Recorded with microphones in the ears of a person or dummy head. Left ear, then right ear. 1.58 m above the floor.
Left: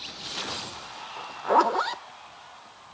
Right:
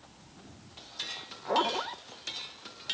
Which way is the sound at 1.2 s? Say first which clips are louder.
Left 8 dB; 45° left (ahead or behind).